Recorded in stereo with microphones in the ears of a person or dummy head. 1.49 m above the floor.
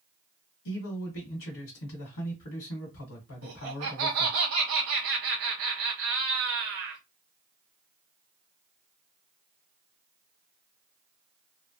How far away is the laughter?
About 1.2 m.